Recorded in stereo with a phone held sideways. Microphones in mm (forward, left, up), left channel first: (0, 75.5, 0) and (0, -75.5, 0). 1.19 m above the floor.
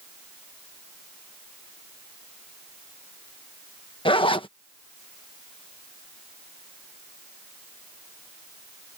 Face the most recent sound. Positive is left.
turn(degrees=35)  # may be behind; listen again after turning